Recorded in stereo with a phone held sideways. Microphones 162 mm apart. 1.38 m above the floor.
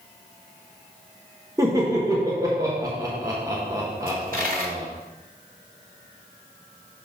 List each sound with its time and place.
1.6 s laughter: 20° right (ahead or behind), 1.1 m
4.1 s a dropped coin: 55° right (ahead or behind), 1.9 m